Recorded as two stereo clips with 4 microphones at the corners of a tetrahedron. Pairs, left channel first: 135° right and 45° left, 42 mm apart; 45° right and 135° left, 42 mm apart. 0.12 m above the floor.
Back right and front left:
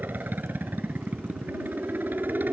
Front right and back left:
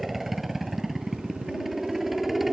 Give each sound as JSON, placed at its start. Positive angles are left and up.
{"t": 0.0, "sound": "a helicopter", "azimuth_deg": 50}